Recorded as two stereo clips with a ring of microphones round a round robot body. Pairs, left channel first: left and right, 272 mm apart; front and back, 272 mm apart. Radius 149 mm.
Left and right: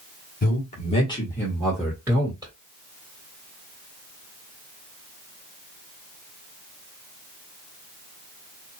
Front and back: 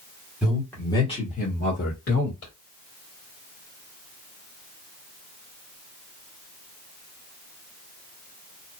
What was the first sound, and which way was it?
A man speaking, 95° left.